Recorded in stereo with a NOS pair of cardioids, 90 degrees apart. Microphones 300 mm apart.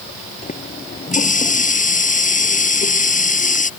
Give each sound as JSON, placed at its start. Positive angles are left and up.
{"t": 0.4, "sound": "a running tap", "azimuth_deg": 25}